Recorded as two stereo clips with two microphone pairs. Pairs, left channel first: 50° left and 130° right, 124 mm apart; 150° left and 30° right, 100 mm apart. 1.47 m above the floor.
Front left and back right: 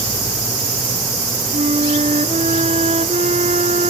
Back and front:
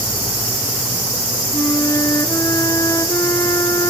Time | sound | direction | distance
1.5 | a flute | 155° right | ?